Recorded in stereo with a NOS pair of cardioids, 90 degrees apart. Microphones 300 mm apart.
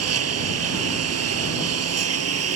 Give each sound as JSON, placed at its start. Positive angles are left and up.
{"t": 0.0, "sound": "a lawn mower", "azimuth_deg": -55}